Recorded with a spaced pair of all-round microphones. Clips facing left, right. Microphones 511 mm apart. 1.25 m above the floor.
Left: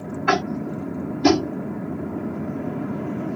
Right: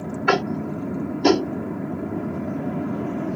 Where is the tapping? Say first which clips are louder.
Right 1 dB; 30° left (ahead or behind).